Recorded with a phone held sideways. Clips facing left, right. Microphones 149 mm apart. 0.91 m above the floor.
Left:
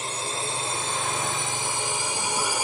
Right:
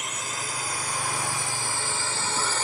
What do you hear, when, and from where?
0.0 s a drone: 30° left (ahead or behind); by 2.6 s 10° left (ahead or behind)